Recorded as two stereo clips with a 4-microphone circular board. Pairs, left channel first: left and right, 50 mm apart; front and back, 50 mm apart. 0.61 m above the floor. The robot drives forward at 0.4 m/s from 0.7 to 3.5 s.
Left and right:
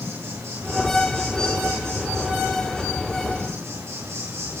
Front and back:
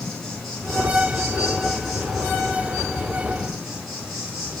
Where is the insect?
80° right, 4.5 m; by 4.6 s 95° right, 4 m.